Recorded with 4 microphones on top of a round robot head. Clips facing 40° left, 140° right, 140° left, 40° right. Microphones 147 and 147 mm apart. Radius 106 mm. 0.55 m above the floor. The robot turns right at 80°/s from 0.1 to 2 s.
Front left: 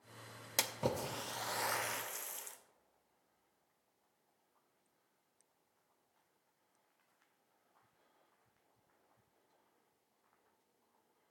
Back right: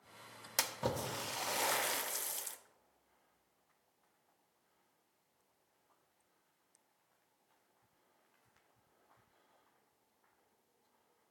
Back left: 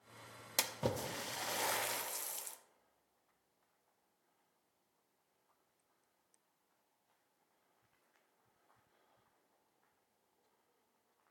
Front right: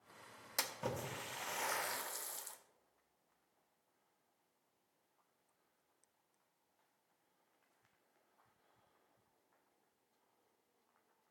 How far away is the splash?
About 0.8 m.